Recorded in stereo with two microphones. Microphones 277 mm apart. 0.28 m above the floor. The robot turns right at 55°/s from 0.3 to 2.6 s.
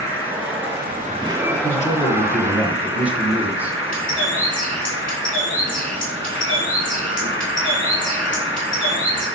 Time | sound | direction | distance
0.0 | an insect | 70° right | 2.5 m
1.5 | a man speaking | 125° left | 1.6 m
3.9 | a bird | 30° left (ahead or behind) | 3.5 m